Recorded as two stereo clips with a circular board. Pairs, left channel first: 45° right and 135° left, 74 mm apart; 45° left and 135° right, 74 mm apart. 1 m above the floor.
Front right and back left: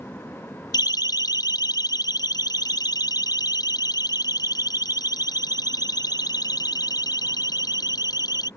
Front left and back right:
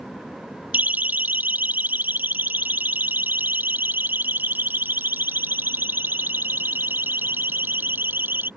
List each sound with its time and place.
0.7 s a siren: 65° right; by 8.5 s 70° right